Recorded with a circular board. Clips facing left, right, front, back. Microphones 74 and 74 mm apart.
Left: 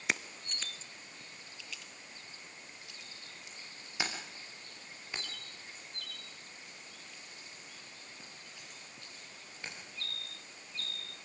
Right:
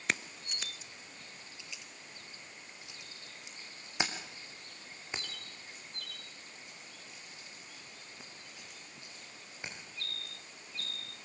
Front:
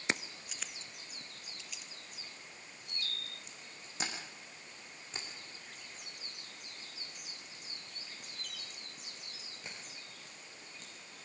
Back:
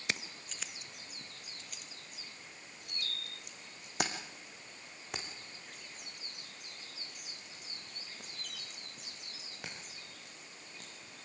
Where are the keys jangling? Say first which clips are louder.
Even, front 3 dB; 5° left, 0.8 m; by 10.9 s 160° right, 10 m.